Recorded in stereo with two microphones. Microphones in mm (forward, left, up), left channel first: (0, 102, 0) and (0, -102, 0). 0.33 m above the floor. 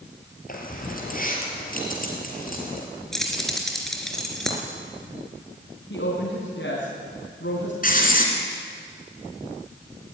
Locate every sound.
0.5 s keys jangling: 45° left (ahead or behind), 4.5 m
3.1 s keys jangling: centre (ahead or behind), 3.5 m
5.9 s a woman speaking: 70° left (ahead or behind), 3.5 m
7.8 s writing: 45° left (ahead or behind), 3.5 m